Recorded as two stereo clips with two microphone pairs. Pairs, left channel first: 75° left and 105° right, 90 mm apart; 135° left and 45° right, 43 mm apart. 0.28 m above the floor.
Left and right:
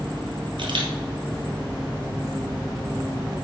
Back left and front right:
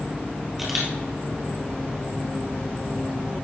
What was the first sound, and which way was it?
A camera shutter, 130° right.